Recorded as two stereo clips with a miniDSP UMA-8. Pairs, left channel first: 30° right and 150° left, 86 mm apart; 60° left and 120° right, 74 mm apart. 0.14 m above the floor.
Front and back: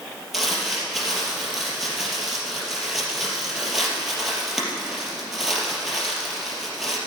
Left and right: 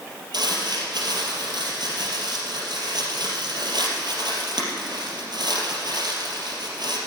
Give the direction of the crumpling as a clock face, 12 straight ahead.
4 o'clock.